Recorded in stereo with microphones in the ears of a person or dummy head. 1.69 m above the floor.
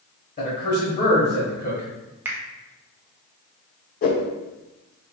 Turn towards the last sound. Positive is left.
turn(degrees=45)  # may be behind; listen again after turning